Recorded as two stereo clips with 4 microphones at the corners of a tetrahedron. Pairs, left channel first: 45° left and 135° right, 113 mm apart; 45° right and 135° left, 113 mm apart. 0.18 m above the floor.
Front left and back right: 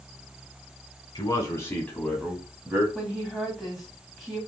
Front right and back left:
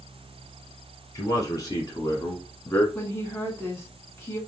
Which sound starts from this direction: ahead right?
A woman speaking, at 3.0 s.